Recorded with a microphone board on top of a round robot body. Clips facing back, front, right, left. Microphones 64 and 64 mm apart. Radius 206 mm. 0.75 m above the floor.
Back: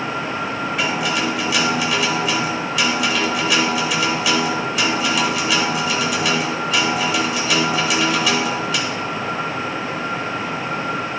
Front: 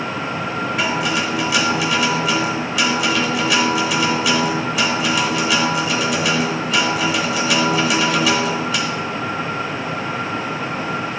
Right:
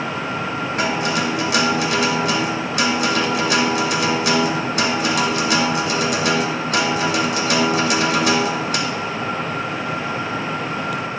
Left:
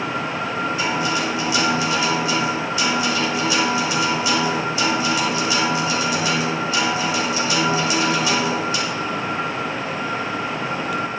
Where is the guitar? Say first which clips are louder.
Even, right 4 dB; 90° right, 1.4 m.